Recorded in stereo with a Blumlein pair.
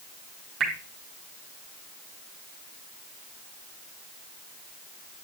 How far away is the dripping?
About 3.5 m.